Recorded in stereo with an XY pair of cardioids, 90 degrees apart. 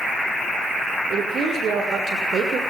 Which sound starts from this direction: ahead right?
A woman speaking, at 1.1 s.